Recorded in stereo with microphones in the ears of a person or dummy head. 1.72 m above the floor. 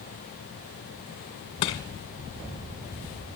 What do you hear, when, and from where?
1.6 s crushing: 20° left (ahead or behind), 1.5 m